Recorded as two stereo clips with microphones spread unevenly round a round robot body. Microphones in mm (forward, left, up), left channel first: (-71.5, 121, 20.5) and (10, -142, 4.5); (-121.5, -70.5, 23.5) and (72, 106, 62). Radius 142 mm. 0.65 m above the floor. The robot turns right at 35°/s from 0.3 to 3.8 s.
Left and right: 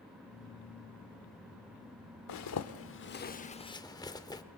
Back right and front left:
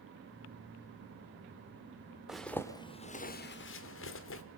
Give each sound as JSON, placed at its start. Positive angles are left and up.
{"t": 2.3, "sound": "a zipper", "azimuth_deg": 130, "distance_m": 1.2}